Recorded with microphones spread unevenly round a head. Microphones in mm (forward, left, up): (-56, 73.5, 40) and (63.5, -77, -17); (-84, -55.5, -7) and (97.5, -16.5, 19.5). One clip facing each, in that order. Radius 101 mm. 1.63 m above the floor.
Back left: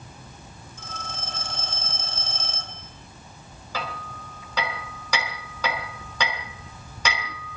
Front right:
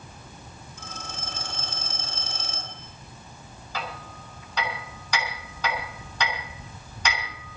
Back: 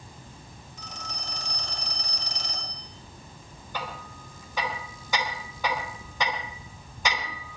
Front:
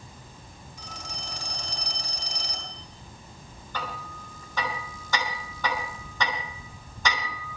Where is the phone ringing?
65° right, 10 m.